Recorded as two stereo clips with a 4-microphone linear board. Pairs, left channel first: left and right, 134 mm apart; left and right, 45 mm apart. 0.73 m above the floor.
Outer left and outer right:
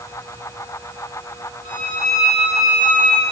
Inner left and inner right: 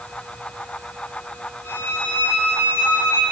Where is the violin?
80° left, 1.8 m.